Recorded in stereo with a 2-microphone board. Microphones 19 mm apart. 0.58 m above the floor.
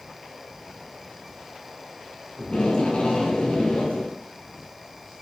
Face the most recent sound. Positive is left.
turn(degrees=65)  # may be behind; listen again after turning